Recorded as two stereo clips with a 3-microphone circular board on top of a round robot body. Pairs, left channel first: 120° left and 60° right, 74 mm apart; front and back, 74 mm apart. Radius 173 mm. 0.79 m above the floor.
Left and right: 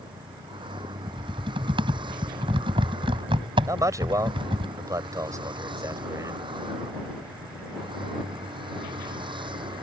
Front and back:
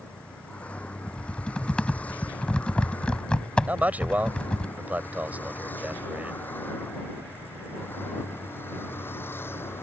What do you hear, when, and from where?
0.0 s a vehicle: 75° right; by 9.8 s 60° right
1.1 s typing on a keyboard: 75° right
3.7 s a man speaking: 110° right